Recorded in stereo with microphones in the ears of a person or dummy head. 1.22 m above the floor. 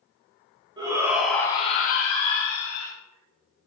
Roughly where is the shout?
Right.